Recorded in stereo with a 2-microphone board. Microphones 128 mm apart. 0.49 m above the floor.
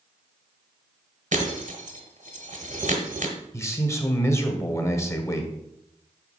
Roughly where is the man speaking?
Left.